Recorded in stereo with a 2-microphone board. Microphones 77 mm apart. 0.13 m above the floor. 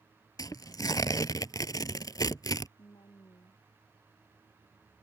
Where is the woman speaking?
85° left.